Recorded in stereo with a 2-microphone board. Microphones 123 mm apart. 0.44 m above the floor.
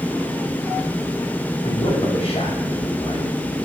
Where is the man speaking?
55° left (ahead or behind), 2.0 m.